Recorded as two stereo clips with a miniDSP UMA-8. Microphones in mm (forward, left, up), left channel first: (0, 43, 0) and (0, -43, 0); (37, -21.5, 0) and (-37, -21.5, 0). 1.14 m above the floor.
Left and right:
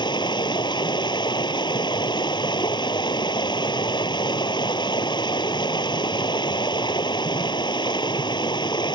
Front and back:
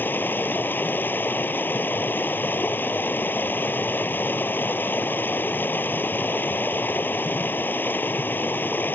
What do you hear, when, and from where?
0.0 s running water: 60° left